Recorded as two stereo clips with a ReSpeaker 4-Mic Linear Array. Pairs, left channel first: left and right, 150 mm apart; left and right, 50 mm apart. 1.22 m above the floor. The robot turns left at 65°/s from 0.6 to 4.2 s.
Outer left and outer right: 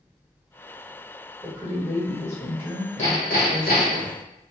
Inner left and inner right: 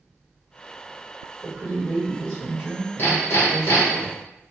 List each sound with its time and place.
1.4 s a woman speaking: 155° right, 1.6 m; by 4.0 s 35° left, 1.6 m
3.0 s hammering: 135° left, 1.2 m; by 4.1 s 60° left, 1.2 m